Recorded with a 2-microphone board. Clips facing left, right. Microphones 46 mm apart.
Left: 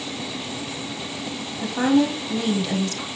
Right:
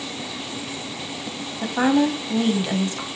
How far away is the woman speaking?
About 2 m.